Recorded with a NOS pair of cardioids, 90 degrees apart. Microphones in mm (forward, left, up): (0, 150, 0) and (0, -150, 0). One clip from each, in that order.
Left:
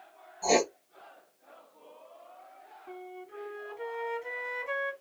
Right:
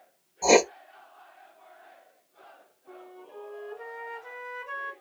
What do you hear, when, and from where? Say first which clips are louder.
0.4 s writing: right 6 dB; 45° right, 0.9 m
2.9 s a flute: left 2 dB; 20° left, 1.2 m